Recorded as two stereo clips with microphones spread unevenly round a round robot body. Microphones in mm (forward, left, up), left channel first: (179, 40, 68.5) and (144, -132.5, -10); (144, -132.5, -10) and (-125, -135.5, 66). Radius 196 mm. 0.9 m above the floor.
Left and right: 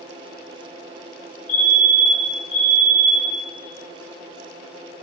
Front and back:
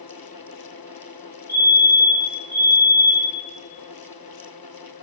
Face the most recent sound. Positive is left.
turn(degrees=90)